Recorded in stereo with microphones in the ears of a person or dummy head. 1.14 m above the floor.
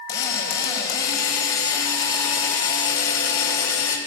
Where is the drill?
65° left (ahead or behind), 2 m.